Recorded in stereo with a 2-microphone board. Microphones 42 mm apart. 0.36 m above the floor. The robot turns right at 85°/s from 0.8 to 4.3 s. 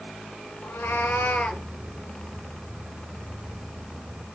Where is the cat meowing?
85° left, 1.9 m; by 1.6 s 160° left, 1.9 m.